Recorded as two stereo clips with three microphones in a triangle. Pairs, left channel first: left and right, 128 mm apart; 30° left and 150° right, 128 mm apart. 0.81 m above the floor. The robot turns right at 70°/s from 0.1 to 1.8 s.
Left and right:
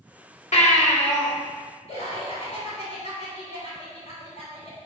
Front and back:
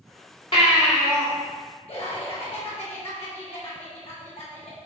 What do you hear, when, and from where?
0.5 s a baby crying: 70° left, 2.5 m; by 1.3 s 125° left, 2.5 m
1.9 s laughter: 60° left, 3 m